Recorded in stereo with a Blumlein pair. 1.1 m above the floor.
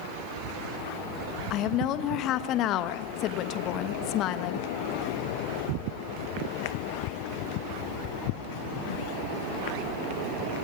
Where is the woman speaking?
35° left, 1.3 m.